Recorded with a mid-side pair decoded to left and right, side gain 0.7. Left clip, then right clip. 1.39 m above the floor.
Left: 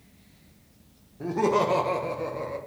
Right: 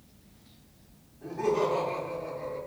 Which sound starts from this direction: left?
Laughter, at 1.2 s.